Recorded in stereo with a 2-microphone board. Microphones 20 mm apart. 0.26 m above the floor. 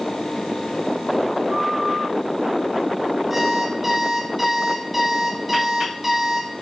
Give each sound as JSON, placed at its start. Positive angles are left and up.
{"t": 3.3, "sound": "an alarm clock", "side_deg": -15, "distance_m": 4.0}